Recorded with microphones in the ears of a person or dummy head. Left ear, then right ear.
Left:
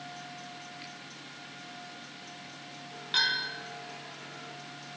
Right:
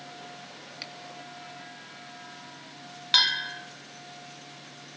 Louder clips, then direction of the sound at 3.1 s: Right 5 dB; 45° right (ahead or behind).